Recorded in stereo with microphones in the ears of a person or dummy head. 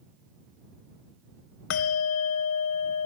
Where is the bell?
70° left (ahead or behind).